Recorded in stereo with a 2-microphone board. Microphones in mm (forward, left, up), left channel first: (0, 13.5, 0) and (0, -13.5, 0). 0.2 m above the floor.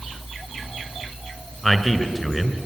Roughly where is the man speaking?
Centre.